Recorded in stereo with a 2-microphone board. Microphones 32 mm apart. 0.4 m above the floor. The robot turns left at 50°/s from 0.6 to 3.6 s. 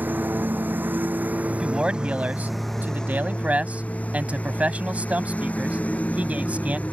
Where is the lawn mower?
80° right; by 6.9 s 130° left.